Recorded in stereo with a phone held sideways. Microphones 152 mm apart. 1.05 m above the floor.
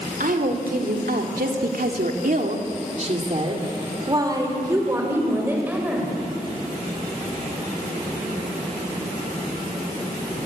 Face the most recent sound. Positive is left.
turn(degrees=-10)  # may be behind; listen again after turning